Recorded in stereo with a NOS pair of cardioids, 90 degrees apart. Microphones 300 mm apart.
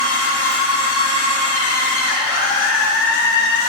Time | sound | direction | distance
0.0 | a machine running | 50° left | 1.8 m